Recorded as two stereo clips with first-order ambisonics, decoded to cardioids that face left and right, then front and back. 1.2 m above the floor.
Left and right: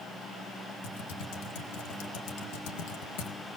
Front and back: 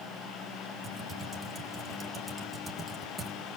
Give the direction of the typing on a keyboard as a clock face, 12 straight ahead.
9 o'clock.